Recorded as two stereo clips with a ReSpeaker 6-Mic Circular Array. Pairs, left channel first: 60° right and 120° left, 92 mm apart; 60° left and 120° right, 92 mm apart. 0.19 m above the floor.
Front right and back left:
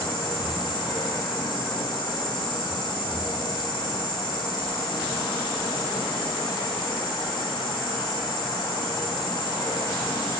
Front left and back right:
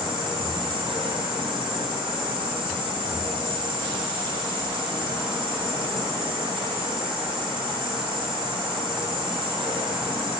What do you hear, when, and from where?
0.0 s an insect: 95° right, 1.2 m